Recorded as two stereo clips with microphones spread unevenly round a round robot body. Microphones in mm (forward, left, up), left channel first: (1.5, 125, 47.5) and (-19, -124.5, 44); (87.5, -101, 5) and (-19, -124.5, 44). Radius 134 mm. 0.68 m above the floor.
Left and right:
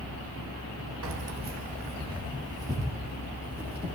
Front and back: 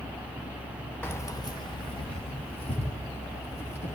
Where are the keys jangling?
60° right, 1.2 m; by 4.0 s 10° right, 5 m.